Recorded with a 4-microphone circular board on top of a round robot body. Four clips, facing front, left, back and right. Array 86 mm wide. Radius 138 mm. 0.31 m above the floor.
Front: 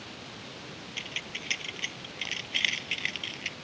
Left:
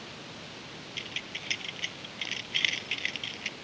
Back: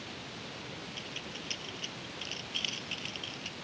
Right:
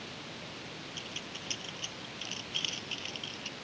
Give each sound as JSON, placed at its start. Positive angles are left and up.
{"t": 1.0, "sound": "keys jangling", "azimuth_deg": 30}